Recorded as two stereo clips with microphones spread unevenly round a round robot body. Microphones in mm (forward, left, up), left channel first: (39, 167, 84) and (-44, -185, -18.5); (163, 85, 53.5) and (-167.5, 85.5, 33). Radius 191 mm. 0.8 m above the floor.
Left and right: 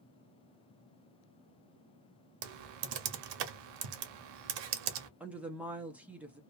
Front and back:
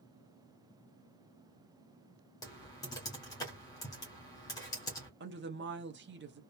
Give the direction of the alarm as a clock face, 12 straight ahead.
No alarm in this recording.